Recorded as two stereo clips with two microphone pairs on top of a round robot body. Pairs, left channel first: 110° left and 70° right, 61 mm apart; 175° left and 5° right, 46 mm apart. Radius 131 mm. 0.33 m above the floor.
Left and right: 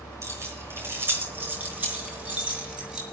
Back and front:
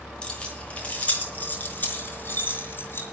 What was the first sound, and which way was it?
Keys jangling, 115° right.